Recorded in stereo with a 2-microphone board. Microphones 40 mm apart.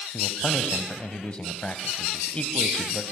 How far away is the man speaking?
About 1.3 m.